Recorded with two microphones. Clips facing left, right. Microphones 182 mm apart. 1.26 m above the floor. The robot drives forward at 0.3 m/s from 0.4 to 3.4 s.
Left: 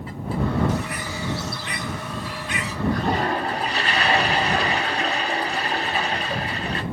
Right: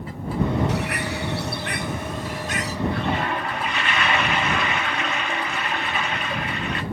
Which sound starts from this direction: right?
A bird, at 0.7 s.